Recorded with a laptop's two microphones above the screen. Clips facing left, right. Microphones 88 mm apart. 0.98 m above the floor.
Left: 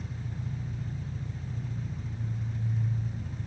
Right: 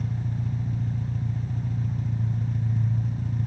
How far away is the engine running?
About 1.6 m.